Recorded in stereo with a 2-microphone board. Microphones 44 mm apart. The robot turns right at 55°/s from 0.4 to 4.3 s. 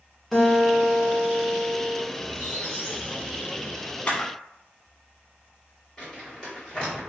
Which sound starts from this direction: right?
A squeak, at 2.2 s.